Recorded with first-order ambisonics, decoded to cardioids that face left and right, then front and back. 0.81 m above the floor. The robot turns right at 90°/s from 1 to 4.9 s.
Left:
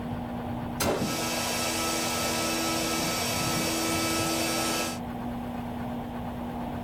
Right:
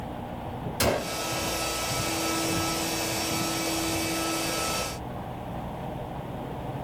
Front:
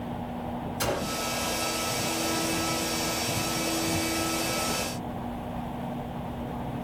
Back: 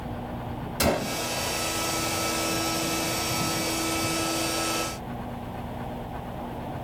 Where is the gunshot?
135° right, 1.5 m; by 1.2 s 115° right, 1.5 m.